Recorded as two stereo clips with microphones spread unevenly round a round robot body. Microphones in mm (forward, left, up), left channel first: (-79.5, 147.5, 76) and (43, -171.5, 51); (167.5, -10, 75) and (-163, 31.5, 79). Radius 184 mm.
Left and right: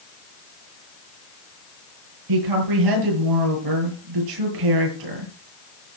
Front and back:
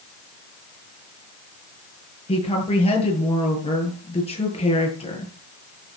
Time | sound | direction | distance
2.3 | a woman speaking | 80° right | 9.5 m